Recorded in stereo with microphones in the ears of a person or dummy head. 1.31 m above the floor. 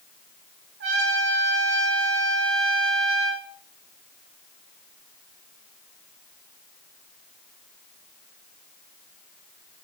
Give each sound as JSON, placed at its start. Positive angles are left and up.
{"t": 0.8, "sound": "a trumpet", "side_deg": -60, "distance_m": 1.7}